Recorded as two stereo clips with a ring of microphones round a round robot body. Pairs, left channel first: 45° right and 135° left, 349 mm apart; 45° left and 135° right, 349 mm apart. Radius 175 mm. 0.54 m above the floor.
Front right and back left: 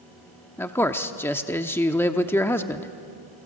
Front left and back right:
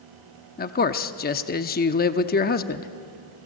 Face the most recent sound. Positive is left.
turn(degrees=30)